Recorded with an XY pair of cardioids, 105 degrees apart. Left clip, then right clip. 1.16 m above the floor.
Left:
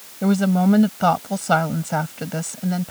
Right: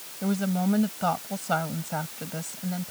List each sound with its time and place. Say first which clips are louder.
0.2 s a woman speaking: left 8 dB; 55° left